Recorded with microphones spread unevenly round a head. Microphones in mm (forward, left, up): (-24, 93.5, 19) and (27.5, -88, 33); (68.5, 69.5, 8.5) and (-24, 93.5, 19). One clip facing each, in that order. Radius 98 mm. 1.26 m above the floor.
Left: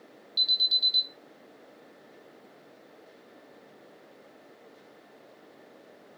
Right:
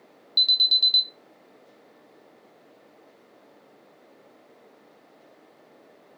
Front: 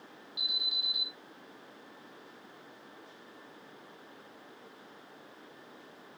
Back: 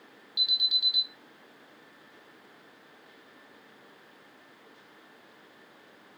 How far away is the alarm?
About 1.8 m.